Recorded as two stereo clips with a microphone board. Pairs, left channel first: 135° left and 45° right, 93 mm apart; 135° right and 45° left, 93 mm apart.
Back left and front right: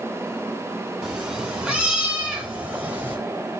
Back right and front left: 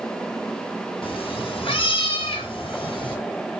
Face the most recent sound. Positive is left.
turn(degrees=-115)